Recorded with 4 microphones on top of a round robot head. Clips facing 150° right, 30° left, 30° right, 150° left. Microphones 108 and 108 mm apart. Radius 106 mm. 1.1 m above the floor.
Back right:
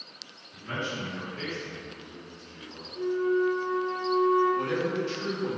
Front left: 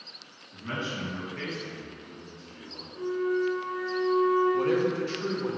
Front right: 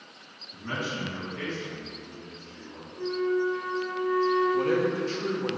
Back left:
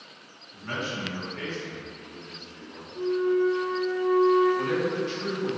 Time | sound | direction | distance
0.5 | a man speaking | 30° left | 1.7 m
3.0 | a flute | 85° left | 1.1 m
4.5 | a man speaking | 5° left | 0.6 m